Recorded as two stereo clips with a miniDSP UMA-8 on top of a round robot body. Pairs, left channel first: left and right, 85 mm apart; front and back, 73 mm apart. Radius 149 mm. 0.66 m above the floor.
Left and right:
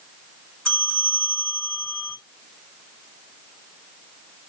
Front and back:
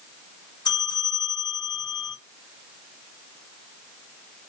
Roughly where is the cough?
No cough in this recording.